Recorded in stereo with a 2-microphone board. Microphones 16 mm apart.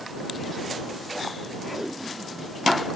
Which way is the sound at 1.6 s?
25° right (ahead or behind).